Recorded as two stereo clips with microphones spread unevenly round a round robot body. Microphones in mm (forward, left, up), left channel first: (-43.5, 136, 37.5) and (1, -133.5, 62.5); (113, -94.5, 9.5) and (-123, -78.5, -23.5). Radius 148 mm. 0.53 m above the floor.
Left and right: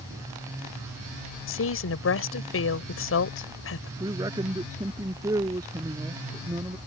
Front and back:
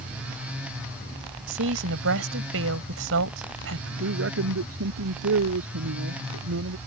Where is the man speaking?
160° right.